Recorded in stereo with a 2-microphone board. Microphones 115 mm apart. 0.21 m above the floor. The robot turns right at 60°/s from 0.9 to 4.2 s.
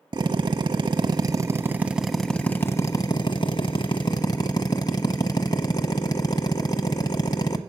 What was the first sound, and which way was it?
A drill, 75° right.